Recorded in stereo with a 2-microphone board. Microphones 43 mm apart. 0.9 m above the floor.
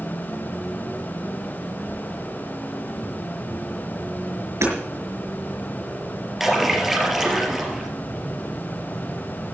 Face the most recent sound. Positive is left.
turn(degrees=0)  # may be behind; listen again after turning